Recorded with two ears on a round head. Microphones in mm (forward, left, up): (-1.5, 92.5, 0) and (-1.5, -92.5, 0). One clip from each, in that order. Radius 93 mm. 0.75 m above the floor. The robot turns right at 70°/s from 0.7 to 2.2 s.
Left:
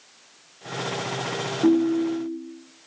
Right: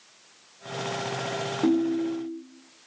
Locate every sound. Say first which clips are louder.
1.6 s a ringtone: left 5 dB; 160° right, 0.6 m; by 2.4 s 120° right, 0.6 m